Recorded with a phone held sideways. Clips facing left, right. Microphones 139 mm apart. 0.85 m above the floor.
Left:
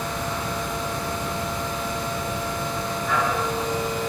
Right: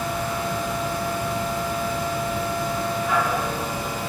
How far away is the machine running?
About 1.6 m.